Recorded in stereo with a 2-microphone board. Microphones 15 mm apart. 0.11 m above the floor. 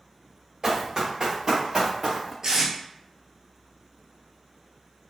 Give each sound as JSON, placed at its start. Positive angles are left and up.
{"t": 0.6, "sound": "running footsteps", "side_deg": -40, "distance_m": 1.6}
{"t": 2.4, "sound": "tape being pulled", "side_deg": -40, "distance_m": 1.0}